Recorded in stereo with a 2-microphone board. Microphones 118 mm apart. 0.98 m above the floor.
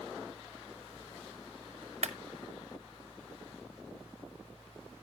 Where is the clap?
65° right (ahead or behind), 0.9 m.